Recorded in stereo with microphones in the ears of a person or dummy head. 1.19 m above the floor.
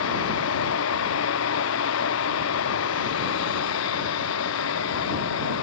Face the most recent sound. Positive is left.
turn(degrees=80)